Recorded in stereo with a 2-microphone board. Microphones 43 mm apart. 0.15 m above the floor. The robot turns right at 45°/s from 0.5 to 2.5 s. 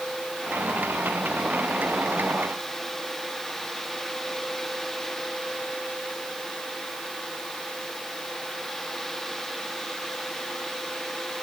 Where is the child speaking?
No child speaking in this recording.